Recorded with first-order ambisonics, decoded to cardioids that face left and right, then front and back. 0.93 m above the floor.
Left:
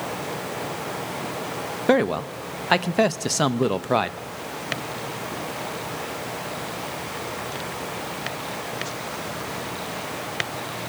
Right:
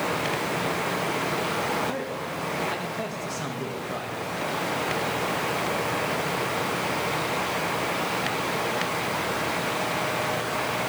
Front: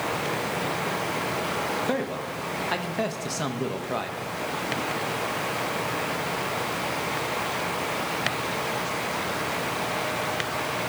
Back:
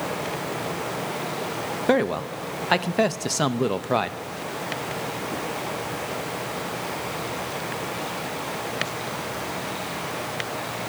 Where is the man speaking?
120° left, 0.5 m.